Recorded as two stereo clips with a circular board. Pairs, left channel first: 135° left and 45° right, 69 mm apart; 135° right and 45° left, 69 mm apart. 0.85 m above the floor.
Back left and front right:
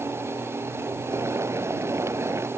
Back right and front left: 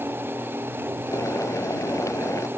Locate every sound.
1.1 s boiling: 95° right